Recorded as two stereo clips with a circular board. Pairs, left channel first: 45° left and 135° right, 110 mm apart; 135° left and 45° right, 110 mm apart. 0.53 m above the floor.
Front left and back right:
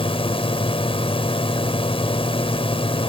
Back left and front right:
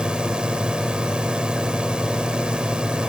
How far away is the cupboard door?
I don't hear a cupboard door.